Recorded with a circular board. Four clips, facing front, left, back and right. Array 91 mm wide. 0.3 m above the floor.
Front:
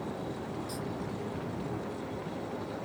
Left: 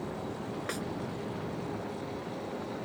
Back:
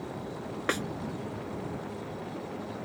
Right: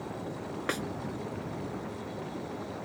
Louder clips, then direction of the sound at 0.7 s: Right 6 dB, back 7 dB; 160° right.